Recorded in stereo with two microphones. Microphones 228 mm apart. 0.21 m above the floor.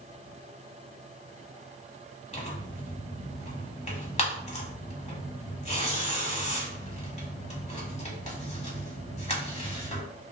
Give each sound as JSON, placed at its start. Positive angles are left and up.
{"t": 2.3, "sound": "tearing paper", "side_deg": 30, "distance_m": 0.8}